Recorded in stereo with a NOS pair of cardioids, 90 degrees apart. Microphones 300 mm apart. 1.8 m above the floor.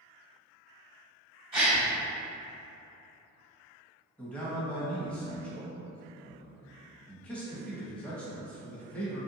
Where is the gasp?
20° right, 1.8 m.